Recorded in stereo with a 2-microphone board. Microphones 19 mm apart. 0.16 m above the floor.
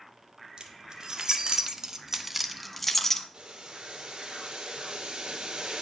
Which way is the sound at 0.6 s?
55° right (ahead or behind).